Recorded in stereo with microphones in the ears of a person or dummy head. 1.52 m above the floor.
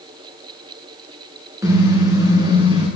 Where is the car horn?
20° right (ahead or behind), 8 m; by 2.9 s 25° right (ahead or behind), 7.5 m.